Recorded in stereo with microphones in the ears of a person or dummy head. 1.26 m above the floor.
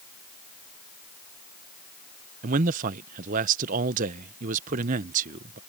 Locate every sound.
2.4 s a man speaking: 40° right (ahead or behind)